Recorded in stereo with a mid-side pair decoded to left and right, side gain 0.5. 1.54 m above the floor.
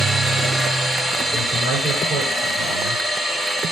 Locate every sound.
0.0 s a machine running: 20° right, 3.5 m
1.3 s a man speaking: 60° right, 8 m